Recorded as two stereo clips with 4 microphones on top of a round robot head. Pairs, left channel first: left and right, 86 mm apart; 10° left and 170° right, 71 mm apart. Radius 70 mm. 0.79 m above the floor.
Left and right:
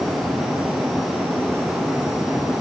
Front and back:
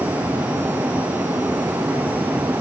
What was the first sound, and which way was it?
Only background noise.